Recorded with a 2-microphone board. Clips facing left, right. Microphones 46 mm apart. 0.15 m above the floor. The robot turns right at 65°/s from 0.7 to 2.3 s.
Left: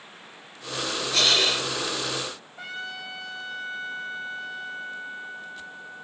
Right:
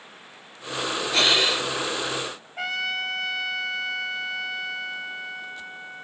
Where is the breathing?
30° right, 2 m; by 1.7 s 5° left, 2 m.